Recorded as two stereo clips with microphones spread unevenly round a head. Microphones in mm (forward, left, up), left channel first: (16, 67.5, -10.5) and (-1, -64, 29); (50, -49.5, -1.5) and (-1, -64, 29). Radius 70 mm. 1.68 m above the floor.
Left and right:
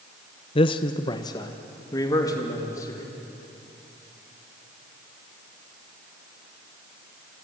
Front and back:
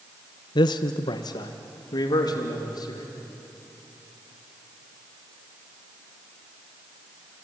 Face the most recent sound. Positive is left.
turn(degrees=10)